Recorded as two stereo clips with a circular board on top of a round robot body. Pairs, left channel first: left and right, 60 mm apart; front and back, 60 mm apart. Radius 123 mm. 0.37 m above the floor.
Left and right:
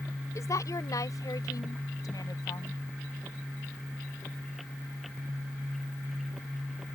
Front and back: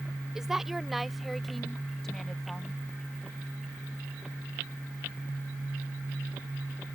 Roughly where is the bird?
No bird in this recording.